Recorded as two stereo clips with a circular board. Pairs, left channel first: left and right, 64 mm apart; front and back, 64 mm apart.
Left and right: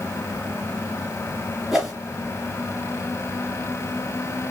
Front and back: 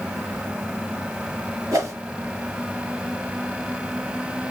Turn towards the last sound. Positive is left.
turn(degrees=-175)